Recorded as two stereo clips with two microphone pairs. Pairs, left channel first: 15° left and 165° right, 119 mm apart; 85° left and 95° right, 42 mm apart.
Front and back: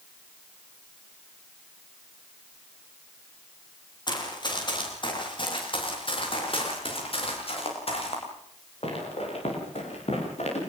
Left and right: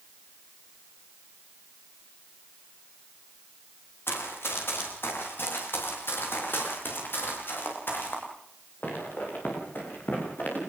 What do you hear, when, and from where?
4.1 s running footsteps: 70° left, 9.5 m; by 10.6 s 45° left, 11.5 m